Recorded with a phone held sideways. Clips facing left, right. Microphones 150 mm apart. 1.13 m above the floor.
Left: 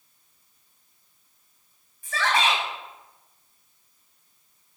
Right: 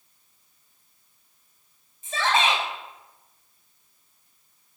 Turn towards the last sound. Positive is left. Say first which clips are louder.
# right 1 dB
turn(degrees=-25)  # may be behind; listen again after turning